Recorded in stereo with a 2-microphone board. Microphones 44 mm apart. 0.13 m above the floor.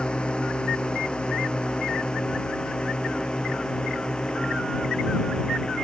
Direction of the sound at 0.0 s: 20° left (ahead or behind).